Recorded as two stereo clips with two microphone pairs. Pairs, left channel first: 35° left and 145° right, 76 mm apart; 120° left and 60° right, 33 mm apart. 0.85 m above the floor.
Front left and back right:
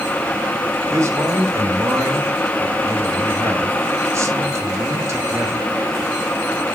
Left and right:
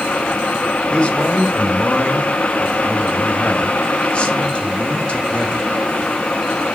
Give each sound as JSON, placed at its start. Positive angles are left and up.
{"t": 0.9, "sound": "a man speaking", "azimuth_deg": 175, "distance_m": 1.4}